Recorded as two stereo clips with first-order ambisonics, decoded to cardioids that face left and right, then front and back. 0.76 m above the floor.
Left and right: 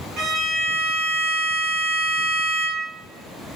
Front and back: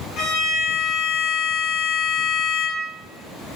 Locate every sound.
0.2 s a violin: 30° right, 1.8 m